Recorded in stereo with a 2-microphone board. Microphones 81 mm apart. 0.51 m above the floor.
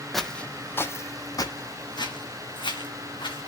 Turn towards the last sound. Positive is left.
turn(degrees=80)